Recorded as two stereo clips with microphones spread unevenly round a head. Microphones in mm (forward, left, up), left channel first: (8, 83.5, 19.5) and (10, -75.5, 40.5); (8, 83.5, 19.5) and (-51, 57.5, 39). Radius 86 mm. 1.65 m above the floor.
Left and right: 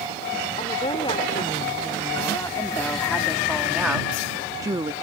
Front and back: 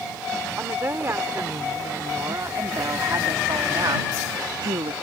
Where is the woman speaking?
155° left; by 4.9 s 155° right.